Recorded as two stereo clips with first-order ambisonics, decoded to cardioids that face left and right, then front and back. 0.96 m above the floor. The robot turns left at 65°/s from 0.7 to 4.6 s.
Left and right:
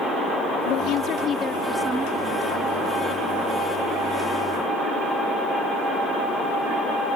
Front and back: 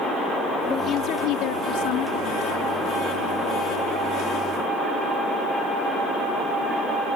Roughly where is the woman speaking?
Ahead left.